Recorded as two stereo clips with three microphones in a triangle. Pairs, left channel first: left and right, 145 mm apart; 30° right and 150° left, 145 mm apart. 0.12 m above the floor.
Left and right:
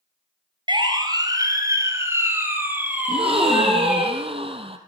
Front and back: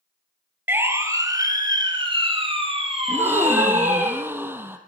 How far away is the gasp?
About 2.5 m.